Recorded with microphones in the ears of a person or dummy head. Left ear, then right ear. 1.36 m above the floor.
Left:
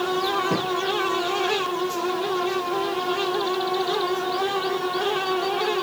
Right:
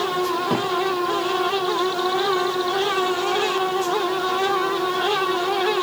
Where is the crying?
I don't hear crying.